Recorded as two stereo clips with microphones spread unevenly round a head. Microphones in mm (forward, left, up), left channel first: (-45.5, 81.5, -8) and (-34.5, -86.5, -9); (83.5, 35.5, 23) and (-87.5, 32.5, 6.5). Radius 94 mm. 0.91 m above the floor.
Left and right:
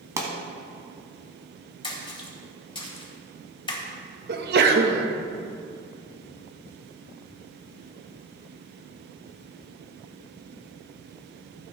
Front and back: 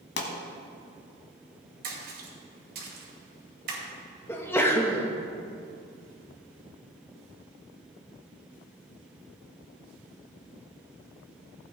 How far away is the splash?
About 2.5 m.